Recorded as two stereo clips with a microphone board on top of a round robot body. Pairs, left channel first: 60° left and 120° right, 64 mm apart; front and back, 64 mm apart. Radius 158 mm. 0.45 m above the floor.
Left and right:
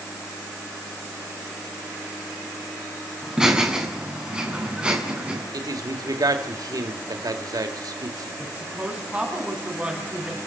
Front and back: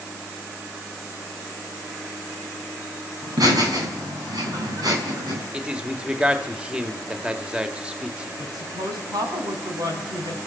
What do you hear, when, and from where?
3.2 s laughter: 160° left, 6.5 m; by 5.4 s 170° left, 7 m
5.5 s a man speaking: 105° right, 2 m
8.4 s a woman speaking: 170° left, 5 m